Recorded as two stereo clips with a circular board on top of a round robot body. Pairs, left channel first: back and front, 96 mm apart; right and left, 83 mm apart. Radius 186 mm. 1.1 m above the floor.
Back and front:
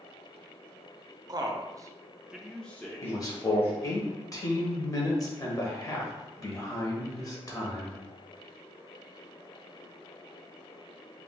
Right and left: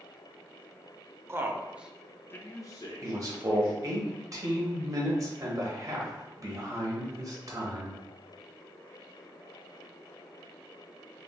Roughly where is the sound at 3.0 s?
Behind left.